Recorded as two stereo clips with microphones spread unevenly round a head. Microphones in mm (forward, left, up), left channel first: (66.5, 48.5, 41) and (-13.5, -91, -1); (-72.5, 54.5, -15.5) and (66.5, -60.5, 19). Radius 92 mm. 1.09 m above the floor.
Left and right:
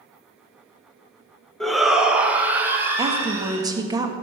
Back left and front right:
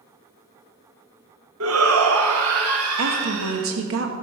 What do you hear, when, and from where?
1.6 s a shout: 35° right, 1.3 m; by 3.7 s 45° right, 3.5 m
3.0 s a woman speaking: 55° right, 1.3 m